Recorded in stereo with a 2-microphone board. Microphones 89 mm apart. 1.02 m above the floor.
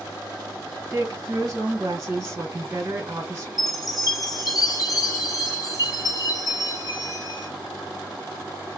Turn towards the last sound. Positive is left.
turn(degrees=50)  # may be behind; listen again after turning